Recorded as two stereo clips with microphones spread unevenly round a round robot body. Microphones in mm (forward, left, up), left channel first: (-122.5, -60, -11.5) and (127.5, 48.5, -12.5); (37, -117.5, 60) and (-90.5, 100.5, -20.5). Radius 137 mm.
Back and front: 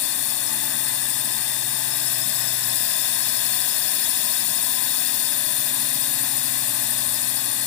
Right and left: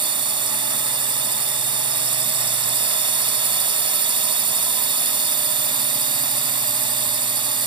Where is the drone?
170° left.